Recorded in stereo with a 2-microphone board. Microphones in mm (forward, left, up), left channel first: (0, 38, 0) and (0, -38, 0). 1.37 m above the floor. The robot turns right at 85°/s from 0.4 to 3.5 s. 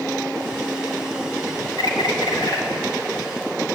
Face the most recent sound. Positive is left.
turn(degrees=-155)